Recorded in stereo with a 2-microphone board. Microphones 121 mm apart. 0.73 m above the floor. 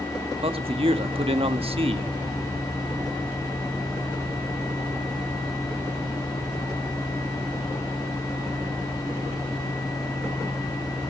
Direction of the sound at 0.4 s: 50° right (ahead or behind).